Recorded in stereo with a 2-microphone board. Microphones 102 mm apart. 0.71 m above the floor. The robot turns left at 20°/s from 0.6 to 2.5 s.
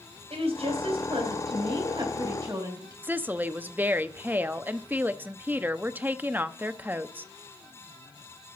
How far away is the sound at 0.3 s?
About 3.5 m.